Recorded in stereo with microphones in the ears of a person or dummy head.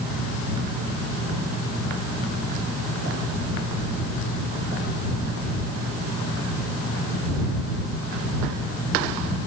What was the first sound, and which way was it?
Only background noise.